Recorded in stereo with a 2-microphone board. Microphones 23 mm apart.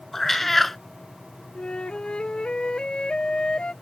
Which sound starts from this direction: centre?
A cat meowing, at 0.1 s.